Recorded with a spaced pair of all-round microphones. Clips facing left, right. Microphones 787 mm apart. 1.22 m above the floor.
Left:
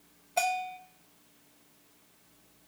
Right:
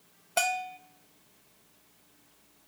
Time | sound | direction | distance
0.4 | a bell | 50° right (ahead or behind) | 0.6 m